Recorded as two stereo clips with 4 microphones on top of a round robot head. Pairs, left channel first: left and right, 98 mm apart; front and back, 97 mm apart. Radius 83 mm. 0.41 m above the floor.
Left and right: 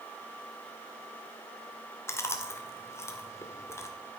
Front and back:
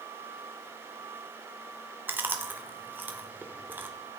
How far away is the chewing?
About 1.4 m.